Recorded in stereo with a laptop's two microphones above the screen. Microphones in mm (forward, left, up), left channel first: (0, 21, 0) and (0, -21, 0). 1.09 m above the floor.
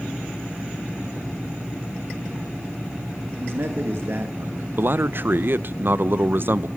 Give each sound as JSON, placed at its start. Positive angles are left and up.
{"t": 3.4, "sound": "a man speaking", "side_deg": -65, "distance_m": 1.1}
{"t": 4.8, "sound": "a man speaking", "side_deg": -55, "distance_m": 0.5}